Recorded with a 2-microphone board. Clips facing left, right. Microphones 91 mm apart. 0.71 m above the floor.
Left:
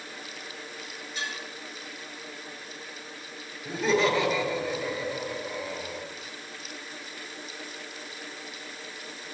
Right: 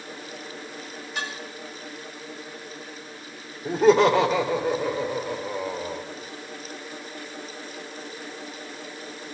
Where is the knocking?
No knocking in this recording.